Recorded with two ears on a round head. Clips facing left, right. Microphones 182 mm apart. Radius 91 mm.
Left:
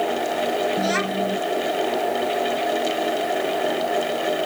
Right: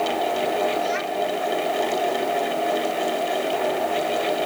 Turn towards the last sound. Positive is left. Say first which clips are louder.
# left 1 dB
turn(degrees=70)  # may be behind; listen again after turning